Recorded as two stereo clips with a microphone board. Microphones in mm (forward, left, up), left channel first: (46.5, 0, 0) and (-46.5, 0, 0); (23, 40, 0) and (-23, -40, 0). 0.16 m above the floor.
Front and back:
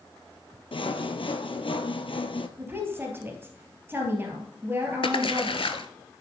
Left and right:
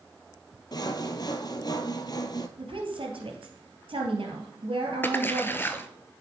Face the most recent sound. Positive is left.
turn(degrees=-5)